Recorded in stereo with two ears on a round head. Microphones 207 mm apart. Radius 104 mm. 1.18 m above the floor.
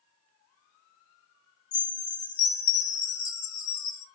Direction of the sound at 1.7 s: 70° left (ahead or behind).